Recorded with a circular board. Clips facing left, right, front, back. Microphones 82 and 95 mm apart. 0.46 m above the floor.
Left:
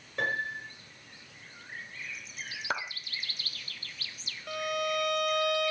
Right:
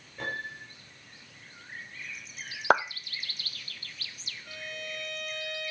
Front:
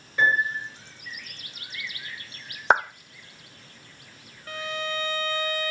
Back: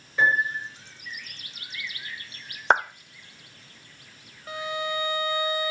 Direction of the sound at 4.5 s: 110° left.